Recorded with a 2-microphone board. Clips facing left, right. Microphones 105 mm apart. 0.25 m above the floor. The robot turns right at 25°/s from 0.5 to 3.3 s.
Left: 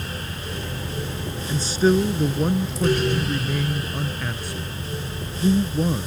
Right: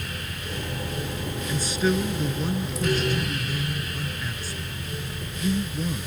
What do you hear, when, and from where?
1.5 s a man speaking: 30° left; by 6.1 s 75° left